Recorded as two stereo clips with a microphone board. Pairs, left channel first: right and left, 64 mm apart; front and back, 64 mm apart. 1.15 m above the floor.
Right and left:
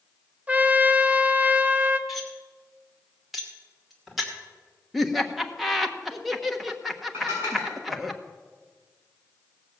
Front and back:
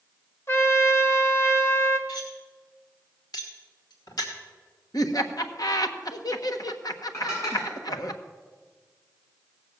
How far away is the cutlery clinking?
About 2.5 m.